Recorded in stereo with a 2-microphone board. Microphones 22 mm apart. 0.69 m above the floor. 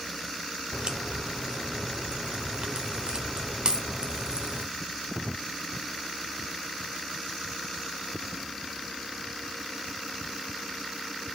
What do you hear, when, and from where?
0.7 s a crack: 40° right (ahead or behind), 1.0 m